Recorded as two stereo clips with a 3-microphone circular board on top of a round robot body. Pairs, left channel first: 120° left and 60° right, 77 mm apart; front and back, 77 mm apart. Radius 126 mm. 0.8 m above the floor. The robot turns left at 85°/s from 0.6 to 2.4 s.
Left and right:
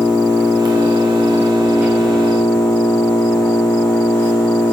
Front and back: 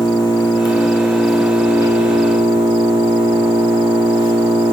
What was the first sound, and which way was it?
An engine running, 30° right.